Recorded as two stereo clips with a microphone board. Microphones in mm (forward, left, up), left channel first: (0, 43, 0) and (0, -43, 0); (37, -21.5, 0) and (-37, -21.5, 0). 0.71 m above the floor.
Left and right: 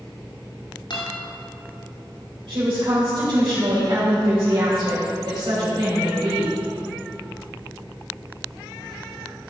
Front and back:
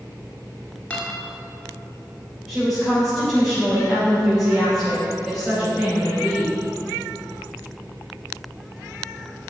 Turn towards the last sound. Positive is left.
turn(degrees=-100)